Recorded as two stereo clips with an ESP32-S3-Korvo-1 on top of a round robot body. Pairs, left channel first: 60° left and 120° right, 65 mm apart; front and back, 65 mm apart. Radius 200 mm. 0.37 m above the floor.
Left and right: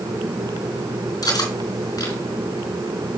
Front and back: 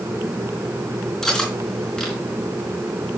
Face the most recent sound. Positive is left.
turn(degrees=85)